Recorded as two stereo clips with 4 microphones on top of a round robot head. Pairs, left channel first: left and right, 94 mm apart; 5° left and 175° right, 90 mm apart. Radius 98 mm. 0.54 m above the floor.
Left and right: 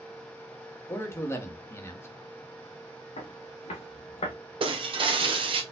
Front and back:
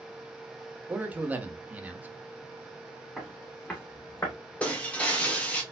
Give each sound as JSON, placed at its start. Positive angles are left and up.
{"t": 0.9, "sound": "a man speaking", "azimuth_deg": 130, "distance_m": 1.4}
{"t": 3.2, "sound": "footsteps", "azimuth_deg": 95, "distance_m": 2.5}
{"t": 4.6, "sound": "breaking glass", "azimuth_deg": -70, "distance_m": 1.4}